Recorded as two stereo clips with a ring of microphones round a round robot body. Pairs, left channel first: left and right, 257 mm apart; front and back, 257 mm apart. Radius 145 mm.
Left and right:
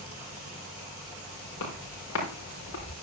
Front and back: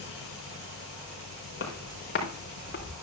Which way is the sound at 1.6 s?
45° left.